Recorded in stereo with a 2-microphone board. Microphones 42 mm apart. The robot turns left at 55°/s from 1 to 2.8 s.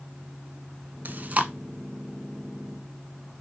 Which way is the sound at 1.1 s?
50° right (ahead or behind).